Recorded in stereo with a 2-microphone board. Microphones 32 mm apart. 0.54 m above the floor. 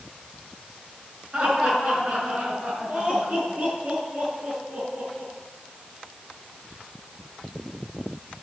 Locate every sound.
1.3 s laughter: 30° right (ahead or behind), 5.5 m; by 5.3 s 50° right (ahead or behind), 6.5 m